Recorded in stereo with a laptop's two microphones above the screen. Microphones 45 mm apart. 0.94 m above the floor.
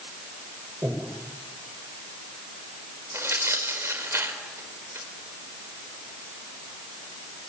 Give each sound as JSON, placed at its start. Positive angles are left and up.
{"t": 0.8, "sound": "breathing", "side_deg": -55, "distance_m": 4.5}
{"t": 3.1, "sound": "tearing paper", "side_deg": -75, "distance_m": 4.0}